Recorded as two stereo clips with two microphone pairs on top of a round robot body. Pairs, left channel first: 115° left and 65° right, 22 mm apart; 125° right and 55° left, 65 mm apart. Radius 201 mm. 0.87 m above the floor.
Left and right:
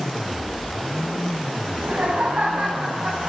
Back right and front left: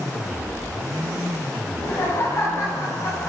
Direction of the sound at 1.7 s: 75° right.